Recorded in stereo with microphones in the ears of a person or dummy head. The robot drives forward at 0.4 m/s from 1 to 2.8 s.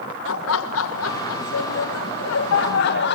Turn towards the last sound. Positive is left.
turn(degrees=55)  # may be behind; listen again after turning